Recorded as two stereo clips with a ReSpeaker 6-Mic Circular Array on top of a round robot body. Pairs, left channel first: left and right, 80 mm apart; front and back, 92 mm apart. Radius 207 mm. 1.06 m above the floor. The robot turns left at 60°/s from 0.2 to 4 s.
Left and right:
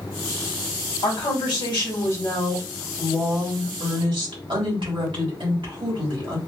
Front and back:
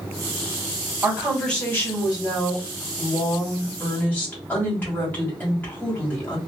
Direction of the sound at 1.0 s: 105° left.